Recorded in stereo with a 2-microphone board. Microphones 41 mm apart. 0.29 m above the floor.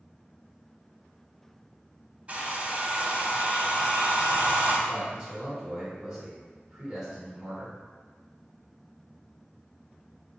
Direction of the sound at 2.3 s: 30° right (ahead or behind).